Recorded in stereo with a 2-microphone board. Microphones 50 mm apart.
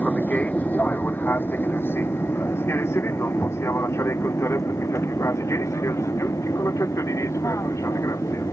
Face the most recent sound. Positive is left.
turn(degrees=80)